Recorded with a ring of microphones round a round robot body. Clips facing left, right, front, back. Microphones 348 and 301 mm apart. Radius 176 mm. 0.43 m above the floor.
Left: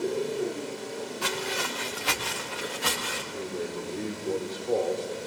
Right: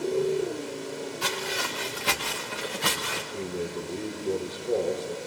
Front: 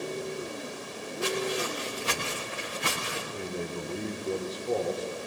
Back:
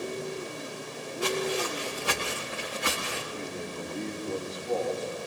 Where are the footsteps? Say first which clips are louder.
Left 1 dB, back 1 dB; 80° right, 3.5 m; by 3.2 s 55° right, 3 m.